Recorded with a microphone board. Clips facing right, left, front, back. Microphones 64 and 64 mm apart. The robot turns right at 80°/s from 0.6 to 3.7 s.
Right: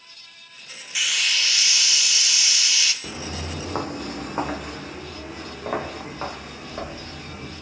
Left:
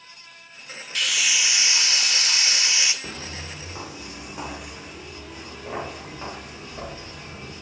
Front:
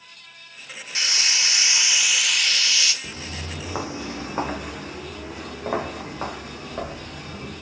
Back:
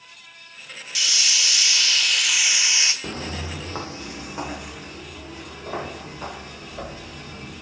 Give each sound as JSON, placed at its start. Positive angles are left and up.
{"t": 0.9, "sound": "a hiss", "azimuth_deg": -15, "distance_m": 0.6}
{"t": 3.0, "sound": "footsteps", "azimuth_deg": 180, "distance_m": 0.7}